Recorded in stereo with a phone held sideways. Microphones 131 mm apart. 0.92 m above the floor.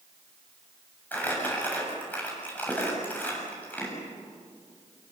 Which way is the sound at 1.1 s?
15° left (ahead or behind).